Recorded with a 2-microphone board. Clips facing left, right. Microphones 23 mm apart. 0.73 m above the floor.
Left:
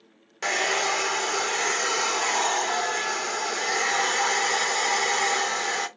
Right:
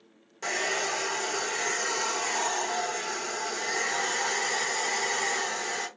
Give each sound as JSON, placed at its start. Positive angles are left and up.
{"t": 0.4, "sound": "a hair dryer", "side_deg": 45, "distance_m": 0.7}